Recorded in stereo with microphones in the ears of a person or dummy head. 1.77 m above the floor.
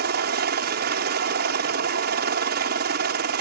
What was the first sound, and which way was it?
A helicopter, 55° right (ahead or behind).